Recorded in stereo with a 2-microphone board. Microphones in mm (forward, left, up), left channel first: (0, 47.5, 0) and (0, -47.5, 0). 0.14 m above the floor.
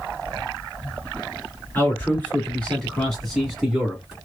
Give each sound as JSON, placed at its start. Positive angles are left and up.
{"t": 1.8, "sound": "a man speaking", "side_deg": 20, "distance_m": 1.8}